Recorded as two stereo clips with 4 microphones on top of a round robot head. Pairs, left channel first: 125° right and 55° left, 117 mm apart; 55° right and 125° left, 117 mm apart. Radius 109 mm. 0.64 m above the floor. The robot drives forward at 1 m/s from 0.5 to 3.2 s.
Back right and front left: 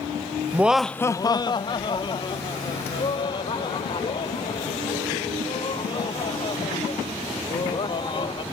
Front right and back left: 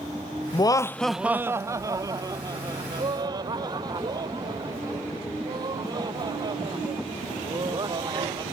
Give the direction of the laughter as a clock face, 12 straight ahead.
12 o'clock.